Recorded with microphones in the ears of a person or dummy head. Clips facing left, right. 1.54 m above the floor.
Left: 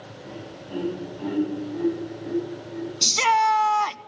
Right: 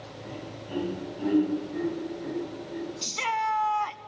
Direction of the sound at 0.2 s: 5° right (ahead or behind).